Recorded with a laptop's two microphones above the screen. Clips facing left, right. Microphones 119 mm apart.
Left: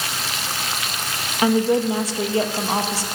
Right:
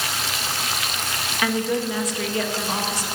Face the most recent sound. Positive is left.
turn(degrees=30)  # may be behind; listen again after turning